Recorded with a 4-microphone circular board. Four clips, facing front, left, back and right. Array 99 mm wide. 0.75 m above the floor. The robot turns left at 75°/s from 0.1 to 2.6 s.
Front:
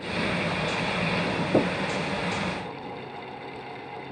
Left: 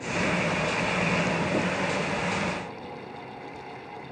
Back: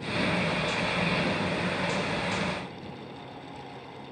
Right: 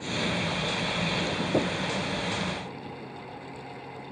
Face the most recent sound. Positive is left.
turn(degrees=-90)